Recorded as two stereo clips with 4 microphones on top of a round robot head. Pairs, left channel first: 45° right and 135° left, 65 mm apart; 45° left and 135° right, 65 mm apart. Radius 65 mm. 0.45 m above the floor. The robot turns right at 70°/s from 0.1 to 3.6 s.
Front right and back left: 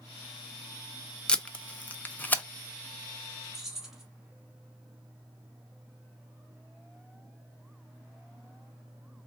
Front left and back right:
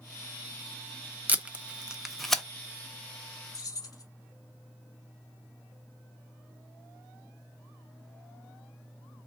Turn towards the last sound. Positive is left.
turn(degrees=55)